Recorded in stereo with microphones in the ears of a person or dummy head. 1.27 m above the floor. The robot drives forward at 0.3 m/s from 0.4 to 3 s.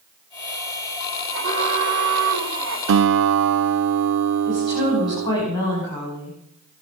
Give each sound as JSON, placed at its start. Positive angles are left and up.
{"t": 1.3, "sound": "an alarm", "side_deg": -75, "distance_m": 3.5}
{"t": 2.9, "sound": "a guitar", "side_deg": -70, "distance_m": 0.6}
{"t": 4.5, "sound": "a woman speaking", "side_deg": 25, "distance_m": 6.0}